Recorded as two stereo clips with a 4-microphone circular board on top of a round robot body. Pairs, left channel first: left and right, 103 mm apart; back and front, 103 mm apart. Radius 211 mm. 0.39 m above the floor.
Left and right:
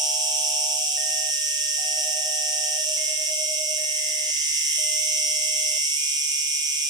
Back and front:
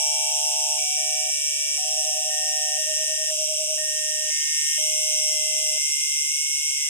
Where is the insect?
115° right, 3 m.